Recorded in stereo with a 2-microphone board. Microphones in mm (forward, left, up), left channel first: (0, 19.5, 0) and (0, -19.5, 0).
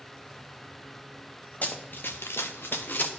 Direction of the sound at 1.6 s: 40° left (ahead or behind).